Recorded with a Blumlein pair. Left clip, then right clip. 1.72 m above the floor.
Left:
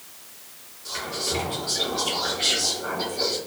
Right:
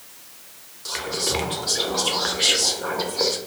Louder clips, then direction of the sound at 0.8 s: Right 3 dB; 25° right.